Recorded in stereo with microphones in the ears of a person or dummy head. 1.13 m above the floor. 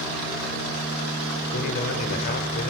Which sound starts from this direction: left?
A man speaking, at 1.5 s.